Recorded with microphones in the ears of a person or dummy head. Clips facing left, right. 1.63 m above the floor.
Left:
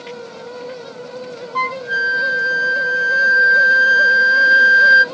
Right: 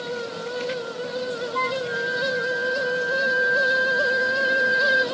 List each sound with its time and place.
1.6 s a flute: 70° left (ahead or behind), 0.5 m